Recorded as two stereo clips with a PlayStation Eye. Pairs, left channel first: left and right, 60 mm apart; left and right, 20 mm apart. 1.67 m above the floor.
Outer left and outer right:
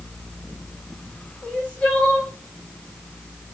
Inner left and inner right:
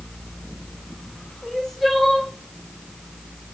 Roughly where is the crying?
Centre.